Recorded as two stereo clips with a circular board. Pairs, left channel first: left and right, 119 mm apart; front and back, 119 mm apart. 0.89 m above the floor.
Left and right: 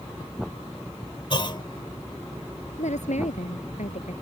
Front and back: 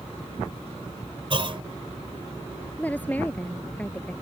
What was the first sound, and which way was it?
A clunk, 140° left.